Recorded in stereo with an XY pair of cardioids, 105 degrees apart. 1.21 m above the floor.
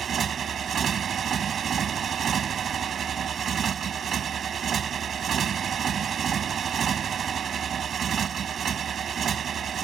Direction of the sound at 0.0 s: 55° right.